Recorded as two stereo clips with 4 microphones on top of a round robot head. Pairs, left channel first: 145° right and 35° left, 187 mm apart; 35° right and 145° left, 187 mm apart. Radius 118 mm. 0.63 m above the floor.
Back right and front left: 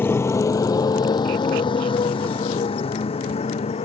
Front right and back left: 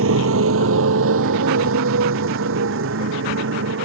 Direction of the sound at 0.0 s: 135° left.